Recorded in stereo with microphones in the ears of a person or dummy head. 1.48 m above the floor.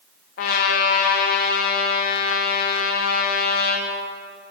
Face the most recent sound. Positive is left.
turn(degrees=45)  # may be behind; listen again after turning